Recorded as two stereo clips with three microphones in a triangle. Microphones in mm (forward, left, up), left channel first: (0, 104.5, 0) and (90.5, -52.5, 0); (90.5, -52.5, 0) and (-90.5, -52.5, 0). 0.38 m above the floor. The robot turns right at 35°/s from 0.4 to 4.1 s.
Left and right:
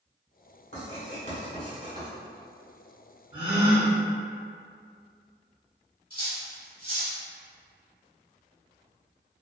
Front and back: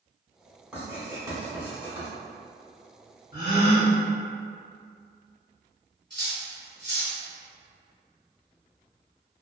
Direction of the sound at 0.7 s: 100° left.